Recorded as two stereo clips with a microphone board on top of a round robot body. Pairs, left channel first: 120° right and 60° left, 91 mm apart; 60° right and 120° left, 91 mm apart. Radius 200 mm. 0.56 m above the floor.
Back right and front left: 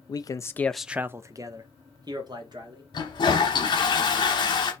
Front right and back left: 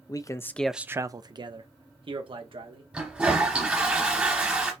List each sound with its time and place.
0.1 s a man speaking: 90° right, 0.7 m; by 2.8 s 100° left, 1.7 m
2.9 s a toilet flushing: 160° right, 0.7 m